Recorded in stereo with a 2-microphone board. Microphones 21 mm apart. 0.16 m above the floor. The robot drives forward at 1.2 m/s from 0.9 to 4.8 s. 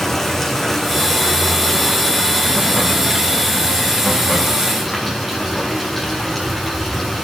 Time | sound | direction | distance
0.0 | running water | 15° left (ahead or behind) | 4 m